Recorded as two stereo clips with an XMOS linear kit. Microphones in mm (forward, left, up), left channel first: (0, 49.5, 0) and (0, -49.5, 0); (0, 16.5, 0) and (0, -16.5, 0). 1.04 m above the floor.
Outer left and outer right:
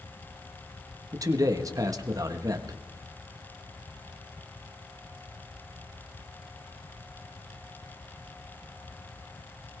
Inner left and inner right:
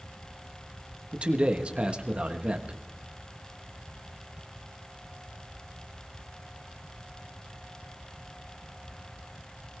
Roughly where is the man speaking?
Right.